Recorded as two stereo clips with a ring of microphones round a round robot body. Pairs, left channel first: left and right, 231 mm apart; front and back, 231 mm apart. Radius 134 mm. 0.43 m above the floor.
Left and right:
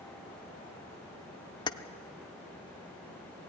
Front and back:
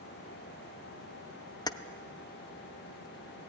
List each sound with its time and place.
1.7 s keys jangling: 50° left, 0.6 m